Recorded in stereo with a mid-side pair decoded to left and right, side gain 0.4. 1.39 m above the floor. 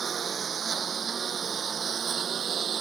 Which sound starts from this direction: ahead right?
A lawn mower, at 0.0 s.